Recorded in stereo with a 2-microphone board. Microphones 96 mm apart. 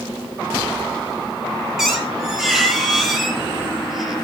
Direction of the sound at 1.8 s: Centre (ahead or behind).